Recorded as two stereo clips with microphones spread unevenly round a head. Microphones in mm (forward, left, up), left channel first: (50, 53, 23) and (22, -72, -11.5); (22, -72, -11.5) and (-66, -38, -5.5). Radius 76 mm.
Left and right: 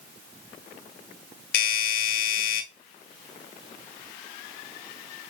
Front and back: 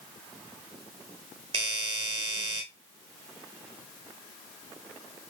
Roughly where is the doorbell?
Left.